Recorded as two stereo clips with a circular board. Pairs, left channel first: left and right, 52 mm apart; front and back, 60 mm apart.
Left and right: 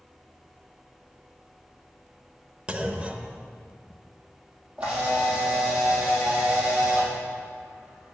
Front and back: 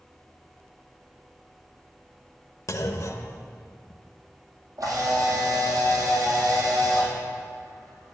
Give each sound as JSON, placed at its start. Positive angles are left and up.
{"t": 2.7, "sound": "a clunk", "azimuth_deg": -20, "distance_m": 0.8}
{"t": 4.8, "sound": "a camera shutter", "azimuth_deg": -160, "distance_m": 4.0}